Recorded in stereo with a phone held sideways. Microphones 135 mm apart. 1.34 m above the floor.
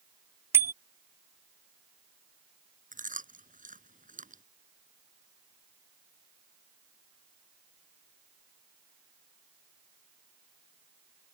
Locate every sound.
0.5 s a bicycle bell: 20° right (ahead or behind)
2.9 s chewing: 80° right